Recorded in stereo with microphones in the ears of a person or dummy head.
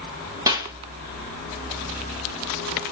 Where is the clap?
20° right (ahead or behind), 1.6 m.